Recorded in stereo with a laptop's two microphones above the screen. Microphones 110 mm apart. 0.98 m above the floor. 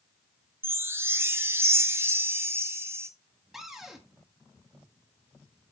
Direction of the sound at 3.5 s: 5° right (ahead or behind).